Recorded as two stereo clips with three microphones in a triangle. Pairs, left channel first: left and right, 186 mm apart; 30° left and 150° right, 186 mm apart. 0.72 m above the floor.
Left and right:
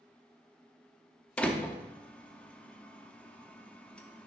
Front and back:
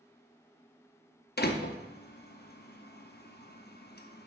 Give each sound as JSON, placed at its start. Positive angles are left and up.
{"t": 1.4, "sound": "a door slam", "azimuth_deg": 10, "distance_m": 0.6}